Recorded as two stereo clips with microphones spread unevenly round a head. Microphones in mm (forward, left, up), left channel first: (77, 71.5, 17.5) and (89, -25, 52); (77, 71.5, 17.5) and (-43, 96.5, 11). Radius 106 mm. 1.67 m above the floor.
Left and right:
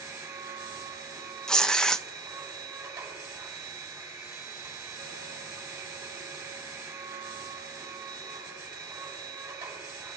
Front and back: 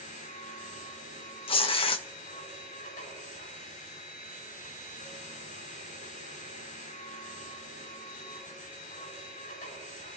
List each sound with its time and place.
0.0 s a machine running: 25° right, 6.5 m
1.5 s tearing paper: 5° right, 0.5 m